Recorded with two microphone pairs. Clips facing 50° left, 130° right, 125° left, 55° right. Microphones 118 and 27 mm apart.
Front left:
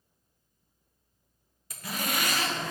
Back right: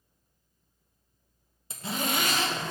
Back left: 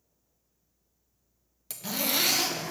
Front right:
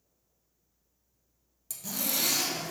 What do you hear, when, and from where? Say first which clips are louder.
1.7 s a zipper: back right 3 dB, back left 5 dB; 165° left, 0.7 m